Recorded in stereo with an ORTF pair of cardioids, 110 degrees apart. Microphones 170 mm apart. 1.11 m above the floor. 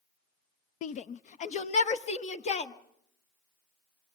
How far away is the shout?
About 0.7 m.